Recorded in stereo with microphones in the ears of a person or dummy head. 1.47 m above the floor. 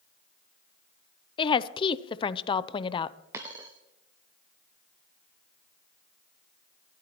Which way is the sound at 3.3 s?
10° right (ahead or behind).